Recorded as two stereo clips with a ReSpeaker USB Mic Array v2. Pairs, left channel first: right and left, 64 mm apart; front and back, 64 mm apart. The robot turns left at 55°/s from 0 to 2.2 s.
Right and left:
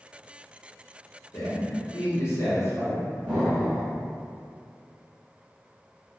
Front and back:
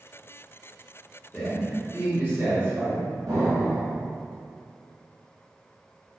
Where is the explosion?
155° left, 1.1 m.